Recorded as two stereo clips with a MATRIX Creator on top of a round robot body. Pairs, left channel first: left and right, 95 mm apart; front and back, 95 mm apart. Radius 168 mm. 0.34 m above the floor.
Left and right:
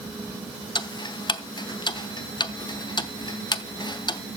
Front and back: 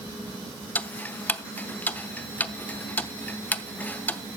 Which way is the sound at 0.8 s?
70° left.